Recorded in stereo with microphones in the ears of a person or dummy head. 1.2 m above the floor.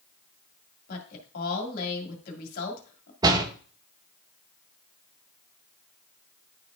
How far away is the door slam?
About 0.8 m.